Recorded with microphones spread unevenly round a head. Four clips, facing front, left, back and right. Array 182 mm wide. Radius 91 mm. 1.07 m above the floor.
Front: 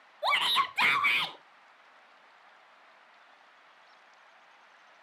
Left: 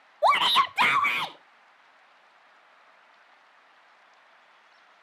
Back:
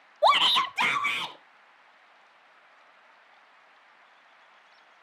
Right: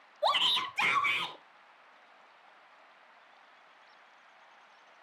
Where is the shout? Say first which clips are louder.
Left 9 dB, back 7 dB; 135° left, 0.7 m; by 1.4 s 80° left, 1.5 m.